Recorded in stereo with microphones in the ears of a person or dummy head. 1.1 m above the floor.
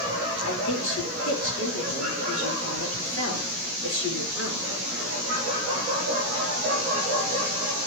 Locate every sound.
0.4 s a woman speaking: 75° left (ahead or behind), 3.5 m